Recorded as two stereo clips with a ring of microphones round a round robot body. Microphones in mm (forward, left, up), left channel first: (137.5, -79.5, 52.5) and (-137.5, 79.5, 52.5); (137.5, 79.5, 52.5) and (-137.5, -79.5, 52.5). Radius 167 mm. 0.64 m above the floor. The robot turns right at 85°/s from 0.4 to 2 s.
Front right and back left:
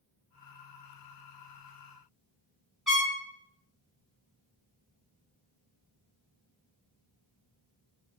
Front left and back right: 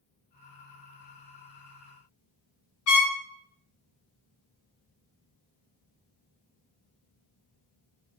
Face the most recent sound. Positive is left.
turn(degrees=60)